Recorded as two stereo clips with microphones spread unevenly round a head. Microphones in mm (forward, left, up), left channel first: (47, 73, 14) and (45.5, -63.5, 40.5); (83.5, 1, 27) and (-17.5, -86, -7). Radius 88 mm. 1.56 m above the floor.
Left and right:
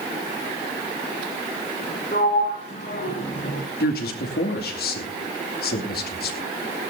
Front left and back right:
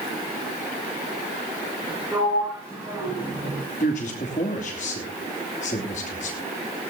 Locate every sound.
2.1 s a sliding door: 140° left, 5.5 m
3.8 s a man speaking: 90° left, 2.5 m